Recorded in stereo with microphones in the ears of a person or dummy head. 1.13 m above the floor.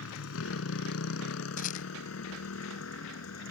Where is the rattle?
45° left (ahead or behind).